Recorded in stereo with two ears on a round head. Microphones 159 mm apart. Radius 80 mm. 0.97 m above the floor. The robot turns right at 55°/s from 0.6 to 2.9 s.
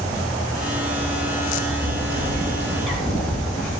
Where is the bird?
55° right, 3.5 m; by 3.7 s 5° left, 3.5 m.